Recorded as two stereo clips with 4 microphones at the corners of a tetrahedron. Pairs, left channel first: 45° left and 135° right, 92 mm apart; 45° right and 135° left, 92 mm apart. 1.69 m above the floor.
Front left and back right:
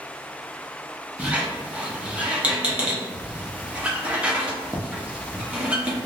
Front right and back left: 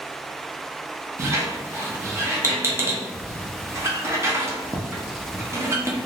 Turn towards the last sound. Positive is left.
turn(degrees=160)